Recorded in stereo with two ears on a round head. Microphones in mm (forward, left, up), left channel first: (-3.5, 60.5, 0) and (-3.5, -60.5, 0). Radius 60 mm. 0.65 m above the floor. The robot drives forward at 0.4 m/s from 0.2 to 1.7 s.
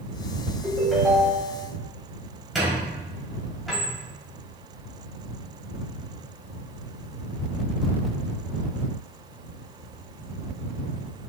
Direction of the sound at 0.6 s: Centre (ahead or behind).